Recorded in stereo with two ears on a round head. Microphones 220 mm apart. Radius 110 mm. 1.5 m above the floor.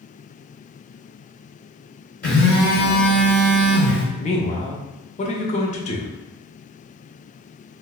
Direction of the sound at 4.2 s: 30° left (ahead or behind).